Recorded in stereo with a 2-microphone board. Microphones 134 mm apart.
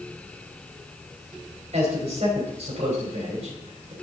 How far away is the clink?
No clink in this recording.